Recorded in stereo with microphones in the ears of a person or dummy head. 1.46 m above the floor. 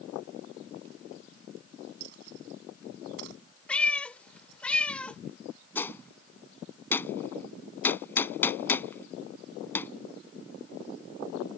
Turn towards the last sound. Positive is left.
turn(degrees=15)  # may be behind; listen again after turning